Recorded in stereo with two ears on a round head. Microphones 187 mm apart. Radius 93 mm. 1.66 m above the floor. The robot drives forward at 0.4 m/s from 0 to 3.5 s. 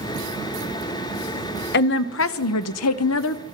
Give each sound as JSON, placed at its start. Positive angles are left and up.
{"t": 1.7, "sound": "a woman speaking", "side_deg": 50, "distance_m": 0.7}